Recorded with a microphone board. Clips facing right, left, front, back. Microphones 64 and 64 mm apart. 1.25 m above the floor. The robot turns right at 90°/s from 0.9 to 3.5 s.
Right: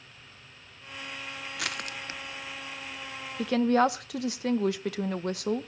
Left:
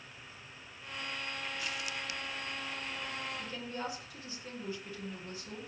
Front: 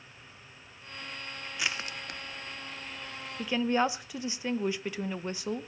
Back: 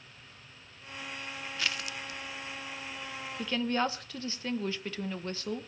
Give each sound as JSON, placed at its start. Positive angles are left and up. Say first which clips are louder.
{"t": 1.6, "sound": "crushing", "louder": "right 3 dB, front 1 dB", "azimuth_deg": -80, "distance_m": 0.6}
{"t": 3.4, "sound": "a woman speaking", "louder": "right 17 dB, front 3 dB", "azimuth_deg": -85, "distance_m": 0.9}